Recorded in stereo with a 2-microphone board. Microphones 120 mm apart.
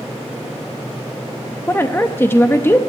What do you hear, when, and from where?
1.7 s a woman speaking: 20° left (ahead or behind), 0.5 m